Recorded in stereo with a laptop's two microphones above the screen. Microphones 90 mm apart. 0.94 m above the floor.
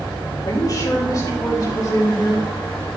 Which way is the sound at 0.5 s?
50° left (ahead or behind).